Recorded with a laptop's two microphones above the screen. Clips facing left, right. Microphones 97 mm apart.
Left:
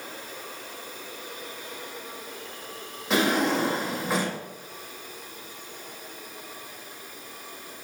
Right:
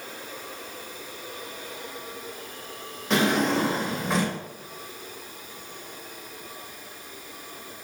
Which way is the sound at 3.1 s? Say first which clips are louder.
Right 1 dB; 5° left (ahead or behind).